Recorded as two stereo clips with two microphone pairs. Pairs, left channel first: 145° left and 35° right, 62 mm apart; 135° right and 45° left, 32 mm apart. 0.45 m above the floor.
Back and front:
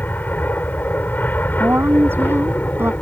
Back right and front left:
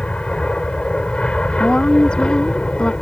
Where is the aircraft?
170° right; by 3.0 s 175° right.